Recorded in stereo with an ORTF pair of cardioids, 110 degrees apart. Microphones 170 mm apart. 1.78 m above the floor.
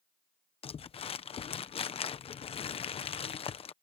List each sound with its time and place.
0.6 s crumpling: 35° left